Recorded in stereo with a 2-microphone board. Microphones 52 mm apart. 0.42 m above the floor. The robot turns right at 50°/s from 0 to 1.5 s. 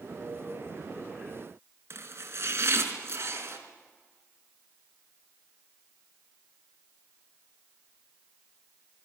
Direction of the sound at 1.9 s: 55° right (ahead or behind).